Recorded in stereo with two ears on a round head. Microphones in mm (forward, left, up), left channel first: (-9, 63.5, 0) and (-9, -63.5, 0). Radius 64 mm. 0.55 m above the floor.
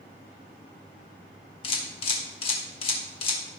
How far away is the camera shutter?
About 1.4 m.